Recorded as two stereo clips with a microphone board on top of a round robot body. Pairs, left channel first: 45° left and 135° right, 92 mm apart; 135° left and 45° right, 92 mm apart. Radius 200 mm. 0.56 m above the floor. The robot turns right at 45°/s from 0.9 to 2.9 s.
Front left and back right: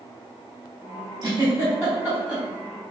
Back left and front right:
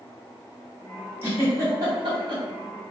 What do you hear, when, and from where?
1.2 s a giggle: 105° right, 1.7 m; by 2.4 s 50° right, 1.7 m